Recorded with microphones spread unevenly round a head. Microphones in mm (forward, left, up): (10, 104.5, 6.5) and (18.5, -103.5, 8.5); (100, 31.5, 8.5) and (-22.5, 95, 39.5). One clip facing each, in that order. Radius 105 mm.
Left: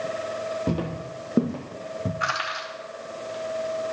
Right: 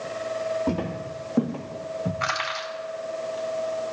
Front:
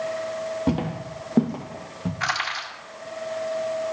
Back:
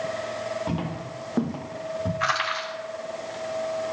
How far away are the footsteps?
About 1.7 m.